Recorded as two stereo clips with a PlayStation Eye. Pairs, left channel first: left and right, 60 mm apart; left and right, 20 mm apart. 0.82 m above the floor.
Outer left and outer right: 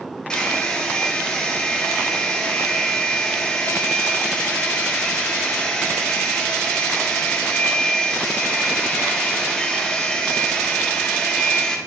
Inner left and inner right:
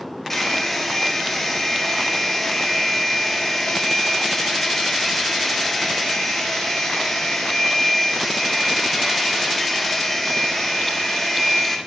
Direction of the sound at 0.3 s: 15° left (ahead or behind).